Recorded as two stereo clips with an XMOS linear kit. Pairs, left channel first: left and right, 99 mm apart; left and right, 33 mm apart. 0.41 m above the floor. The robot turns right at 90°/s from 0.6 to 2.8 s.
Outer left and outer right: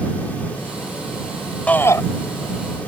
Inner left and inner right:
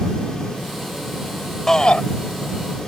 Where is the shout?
15° left; by 2.0 s 50° left.